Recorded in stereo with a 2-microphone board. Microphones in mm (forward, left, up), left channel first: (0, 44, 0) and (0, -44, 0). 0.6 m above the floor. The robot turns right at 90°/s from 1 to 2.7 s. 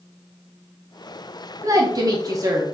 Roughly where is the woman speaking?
Behind right.